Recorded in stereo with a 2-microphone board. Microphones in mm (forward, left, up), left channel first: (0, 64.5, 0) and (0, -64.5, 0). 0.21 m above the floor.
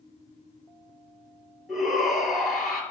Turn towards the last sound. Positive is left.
turn(degrees=-5)  # may be behind; listen again after turning